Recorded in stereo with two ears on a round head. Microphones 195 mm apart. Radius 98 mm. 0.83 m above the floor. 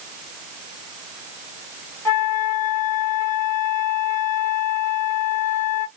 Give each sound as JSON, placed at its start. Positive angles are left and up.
{"t": 2.0, "sound": "a flute", "side_deg": 15, "distance_m": 1.1}